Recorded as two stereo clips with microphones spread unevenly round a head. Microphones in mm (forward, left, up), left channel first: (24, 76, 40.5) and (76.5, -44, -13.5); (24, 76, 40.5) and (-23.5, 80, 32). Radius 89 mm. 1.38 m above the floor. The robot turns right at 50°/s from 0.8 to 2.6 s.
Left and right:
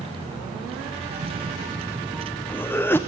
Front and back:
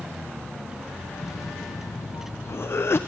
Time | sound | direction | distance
1.0 | a cough | 45° right | 0.8 m